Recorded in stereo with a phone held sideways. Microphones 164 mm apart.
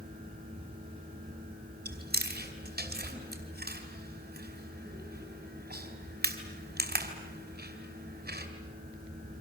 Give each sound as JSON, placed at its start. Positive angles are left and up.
{"t": 0.0, "sound": "a fan", "side_deg": -60, "distance_m": 8.0}
{"t": 1.9, "sound": "chewing", "side_deg": -75, "distance_m": 3.0}